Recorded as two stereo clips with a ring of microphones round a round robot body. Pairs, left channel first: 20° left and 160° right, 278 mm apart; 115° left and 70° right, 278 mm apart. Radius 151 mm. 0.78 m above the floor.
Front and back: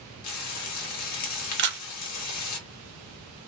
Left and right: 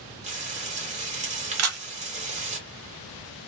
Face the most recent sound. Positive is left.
turn(degrees=-105)